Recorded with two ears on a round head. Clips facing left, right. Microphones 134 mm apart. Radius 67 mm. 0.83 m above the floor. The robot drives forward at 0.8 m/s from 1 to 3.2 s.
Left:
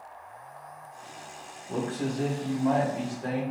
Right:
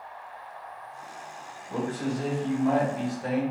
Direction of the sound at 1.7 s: 45° left (ahead or behind).